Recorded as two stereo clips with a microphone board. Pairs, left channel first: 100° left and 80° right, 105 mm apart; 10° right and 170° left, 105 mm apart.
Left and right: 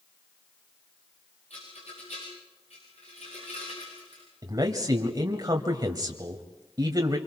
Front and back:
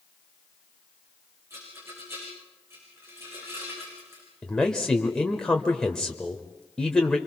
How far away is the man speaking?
About 1.3 m.